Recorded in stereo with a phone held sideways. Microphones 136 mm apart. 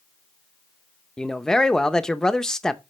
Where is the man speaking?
5° left (ahead or behind), 0.5 m.